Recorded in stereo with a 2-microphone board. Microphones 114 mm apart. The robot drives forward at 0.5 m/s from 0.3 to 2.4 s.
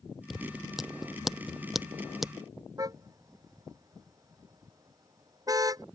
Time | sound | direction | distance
0.3 | scissors | 5° right (ahead or behind) | ?
2.8 | a car horn | 30° right (ahead or behind) | ?